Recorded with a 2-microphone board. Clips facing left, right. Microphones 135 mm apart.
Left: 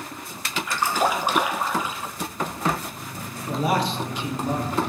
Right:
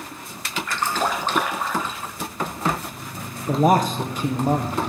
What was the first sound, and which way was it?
A splash, 10° left (ahead or behind).